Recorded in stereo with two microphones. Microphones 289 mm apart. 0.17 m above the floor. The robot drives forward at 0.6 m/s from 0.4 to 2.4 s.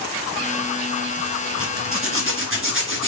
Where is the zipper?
50° right (ahead or behind), 2.5 m; by 3.1 s 45° right (ahead or behind), 2.5 m.